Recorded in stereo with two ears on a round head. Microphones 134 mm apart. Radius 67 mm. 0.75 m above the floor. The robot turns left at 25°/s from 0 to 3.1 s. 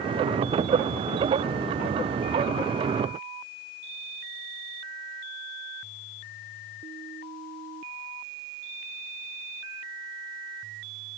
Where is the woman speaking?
No woman speaking in this recording.